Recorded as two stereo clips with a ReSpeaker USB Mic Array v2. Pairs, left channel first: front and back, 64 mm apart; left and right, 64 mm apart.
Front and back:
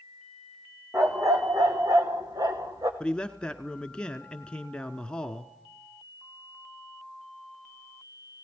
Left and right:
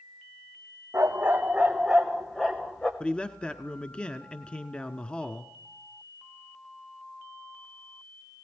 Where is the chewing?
No chewing in this recording.